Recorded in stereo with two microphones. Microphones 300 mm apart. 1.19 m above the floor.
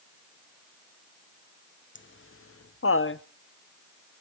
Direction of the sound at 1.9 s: 35° left (ahead or behind).